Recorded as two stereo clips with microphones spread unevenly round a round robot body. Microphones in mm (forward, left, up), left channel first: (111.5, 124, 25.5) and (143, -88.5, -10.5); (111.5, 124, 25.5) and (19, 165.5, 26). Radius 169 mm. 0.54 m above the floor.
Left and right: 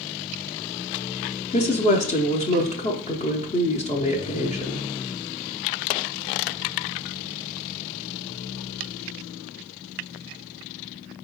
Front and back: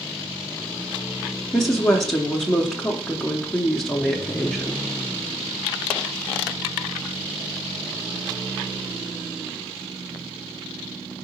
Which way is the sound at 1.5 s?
55° left.